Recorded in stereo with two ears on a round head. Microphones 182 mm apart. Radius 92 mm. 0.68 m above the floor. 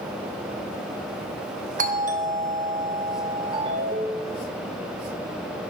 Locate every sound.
1.8 s a doorbell: 40° right (ahead or behind), 1.3 m
3.5 s a ringtone: 25° right (ahead or behind), 1.8 m